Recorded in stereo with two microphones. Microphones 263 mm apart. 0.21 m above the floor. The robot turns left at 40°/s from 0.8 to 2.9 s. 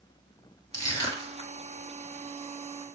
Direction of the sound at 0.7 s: 15° left (ahead or behind).